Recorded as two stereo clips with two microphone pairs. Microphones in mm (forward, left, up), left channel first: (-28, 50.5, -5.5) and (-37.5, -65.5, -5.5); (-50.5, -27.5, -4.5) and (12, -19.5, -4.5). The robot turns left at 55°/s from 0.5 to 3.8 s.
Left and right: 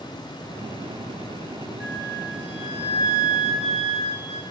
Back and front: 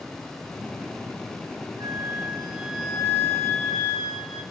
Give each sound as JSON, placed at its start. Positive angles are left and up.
{"t": 1.8, "sound": "a flute", "azimuth_deg": -20, "distance_m": 1.4}